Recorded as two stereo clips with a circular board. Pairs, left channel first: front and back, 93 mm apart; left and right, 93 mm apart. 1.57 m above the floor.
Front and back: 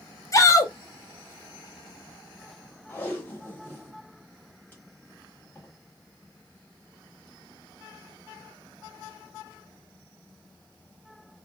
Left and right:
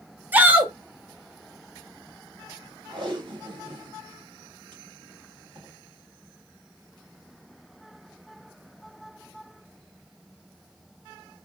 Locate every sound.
0.3 s a shout: 30° right, 0.6 m
2.9 s tape being pulled: 65° right, 1.1 m